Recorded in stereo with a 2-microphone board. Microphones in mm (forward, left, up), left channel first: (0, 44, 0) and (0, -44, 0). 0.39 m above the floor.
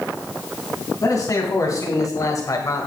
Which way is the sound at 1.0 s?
40° left (ahead or behind).